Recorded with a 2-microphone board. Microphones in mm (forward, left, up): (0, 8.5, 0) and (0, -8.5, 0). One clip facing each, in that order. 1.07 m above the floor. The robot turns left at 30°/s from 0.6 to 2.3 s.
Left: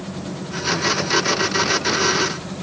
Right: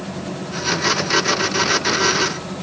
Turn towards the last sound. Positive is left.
No sound to turn to.